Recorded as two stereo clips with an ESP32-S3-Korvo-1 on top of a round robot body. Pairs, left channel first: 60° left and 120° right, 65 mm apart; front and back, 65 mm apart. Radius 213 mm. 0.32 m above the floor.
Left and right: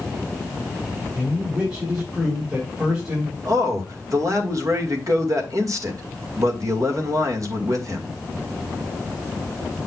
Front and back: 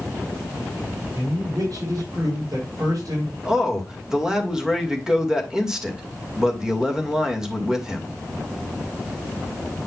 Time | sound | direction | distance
1.1 | a man speaking | 175° right | 4.5 m
3.5 | a man speaking | 100° right | 2.5 m